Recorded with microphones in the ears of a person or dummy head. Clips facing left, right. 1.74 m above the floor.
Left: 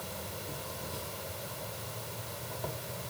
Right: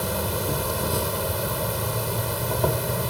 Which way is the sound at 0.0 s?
80° right.